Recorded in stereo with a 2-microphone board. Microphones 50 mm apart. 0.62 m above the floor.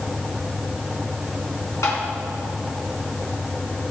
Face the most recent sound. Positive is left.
turn(degrees=85)